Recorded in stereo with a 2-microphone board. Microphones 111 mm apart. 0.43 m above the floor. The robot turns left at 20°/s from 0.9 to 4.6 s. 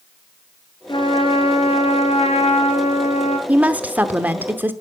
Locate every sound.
0.9 s a trumpet: 135° left, 2 m; by 3.4 s 85° left, 2 m
3.5 s a woman speaking: 10° right (ahead or behind), 0.9 m; by 4.7 s 15° right (ahead or behind), 0.9 m